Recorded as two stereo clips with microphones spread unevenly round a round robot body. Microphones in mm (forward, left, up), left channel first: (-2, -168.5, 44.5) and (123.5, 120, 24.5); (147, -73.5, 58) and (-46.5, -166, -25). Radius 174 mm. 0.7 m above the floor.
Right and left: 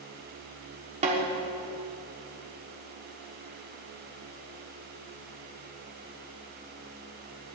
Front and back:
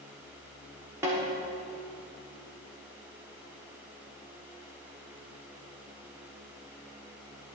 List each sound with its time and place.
1.0 s a snare drum: 135° left, 1.3 m